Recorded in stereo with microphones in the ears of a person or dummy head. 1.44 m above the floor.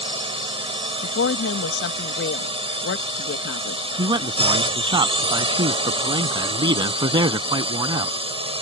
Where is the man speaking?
30° right (ahead or behind).